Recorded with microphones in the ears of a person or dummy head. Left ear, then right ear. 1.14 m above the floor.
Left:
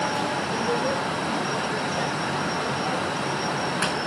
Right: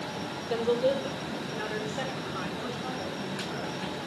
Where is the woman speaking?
15° right (ahead or behind), 3 m; by 3.8 s 20° left (ahead or behind), 6.5 m.